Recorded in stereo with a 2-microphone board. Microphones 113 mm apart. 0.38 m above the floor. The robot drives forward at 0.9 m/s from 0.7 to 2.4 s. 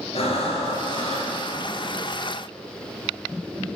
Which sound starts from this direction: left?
Breathing, at 0.1 s.